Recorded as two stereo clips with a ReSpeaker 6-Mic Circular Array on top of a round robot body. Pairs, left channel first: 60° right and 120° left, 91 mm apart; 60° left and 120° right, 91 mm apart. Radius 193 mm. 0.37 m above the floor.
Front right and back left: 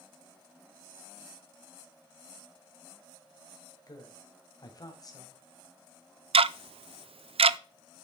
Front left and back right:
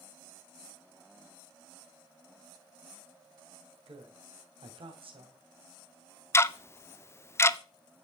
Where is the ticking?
120° left, 0.5 m.